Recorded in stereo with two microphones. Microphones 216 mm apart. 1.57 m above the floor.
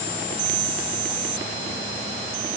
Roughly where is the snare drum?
No snare drum in this recording.